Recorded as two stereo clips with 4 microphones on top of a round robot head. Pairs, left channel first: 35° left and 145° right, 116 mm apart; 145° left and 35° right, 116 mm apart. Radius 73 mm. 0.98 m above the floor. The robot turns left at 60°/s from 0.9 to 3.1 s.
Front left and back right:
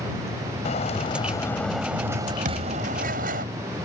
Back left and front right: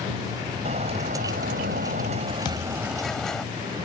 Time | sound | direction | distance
0.7 | a bird | straight ahead | ?
2.5 | a thud | 160° right | ?